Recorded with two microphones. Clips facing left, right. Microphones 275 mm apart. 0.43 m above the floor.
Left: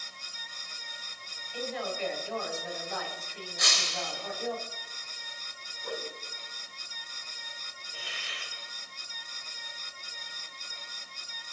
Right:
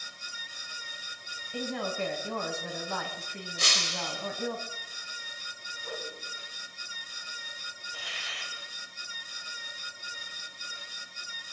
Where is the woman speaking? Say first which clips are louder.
Right 2 dB; 65° right (ahead or behind), 2.5 m.